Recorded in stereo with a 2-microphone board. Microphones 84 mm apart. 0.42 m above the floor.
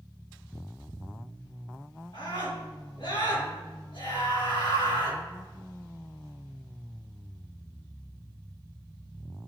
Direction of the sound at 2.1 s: 75° left (ahead or behind).